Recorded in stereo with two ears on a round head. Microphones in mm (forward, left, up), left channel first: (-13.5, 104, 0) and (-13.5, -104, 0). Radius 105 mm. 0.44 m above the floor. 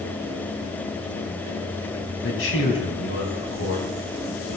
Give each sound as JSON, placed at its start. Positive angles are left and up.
{"t": 2.2, "sound": "a man speaking", "side_deg": 55, "distance_m": 4.0}